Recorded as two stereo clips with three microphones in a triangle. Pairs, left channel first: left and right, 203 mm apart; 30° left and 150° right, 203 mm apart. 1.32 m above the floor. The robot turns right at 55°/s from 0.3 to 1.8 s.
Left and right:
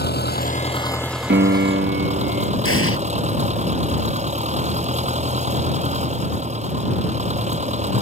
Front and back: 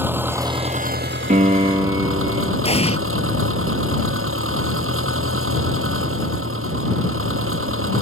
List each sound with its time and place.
0.0 s an engine running: 130° left; by 8.0 s 150° right
1.3 s a piano: 105° right; by 2.5 s 80° right
2.6 s an explosion: 90° left